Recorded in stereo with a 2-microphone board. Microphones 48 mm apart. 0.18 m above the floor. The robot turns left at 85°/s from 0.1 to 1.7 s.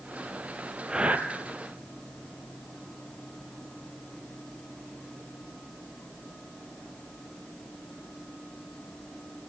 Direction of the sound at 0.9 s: 15° right (ahead or behind).